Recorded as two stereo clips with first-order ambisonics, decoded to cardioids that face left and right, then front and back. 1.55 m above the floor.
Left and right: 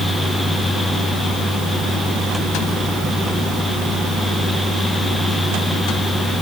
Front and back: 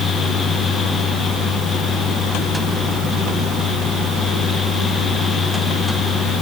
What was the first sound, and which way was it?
Only background noise.